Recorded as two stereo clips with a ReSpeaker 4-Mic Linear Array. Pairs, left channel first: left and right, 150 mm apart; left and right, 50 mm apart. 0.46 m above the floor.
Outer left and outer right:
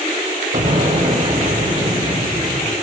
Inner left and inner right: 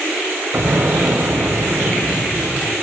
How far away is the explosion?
About 0.7 m.